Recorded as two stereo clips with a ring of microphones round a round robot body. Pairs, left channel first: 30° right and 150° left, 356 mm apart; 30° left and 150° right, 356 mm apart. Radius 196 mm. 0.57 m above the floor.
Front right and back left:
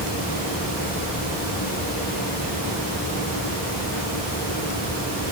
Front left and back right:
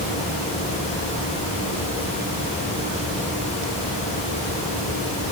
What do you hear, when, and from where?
Only background noise.